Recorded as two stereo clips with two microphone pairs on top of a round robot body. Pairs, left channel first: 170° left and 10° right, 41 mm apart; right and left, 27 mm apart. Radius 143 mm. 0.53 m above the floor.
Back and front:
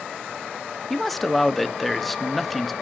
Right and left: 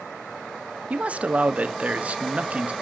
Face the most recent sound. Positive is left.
turn(degrees=90)